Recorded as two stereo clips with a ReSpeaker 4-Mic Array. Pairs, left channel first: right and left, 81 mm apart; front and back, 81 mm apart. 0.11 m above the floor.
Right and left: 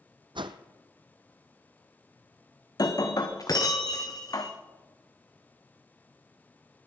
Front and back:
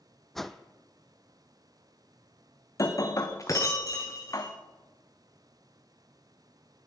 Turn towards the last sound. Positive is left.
turn(degrees=-50)